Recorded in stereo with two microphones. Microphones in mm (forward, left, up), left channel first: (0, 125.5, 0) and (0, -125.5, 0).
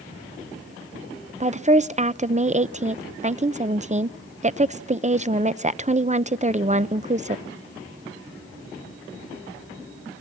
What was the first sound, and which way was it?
A woman speaking, 30° right (ahead or behind).